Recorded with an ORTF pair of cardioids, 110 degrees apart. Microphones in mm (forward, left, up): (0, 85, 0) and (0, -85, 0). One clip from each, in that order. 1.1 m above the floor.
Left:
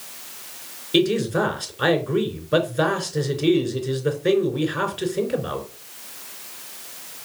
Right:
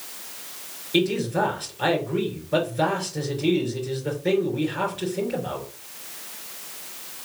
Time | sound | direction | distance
0.9 | a man speaking | 40° left | 4 m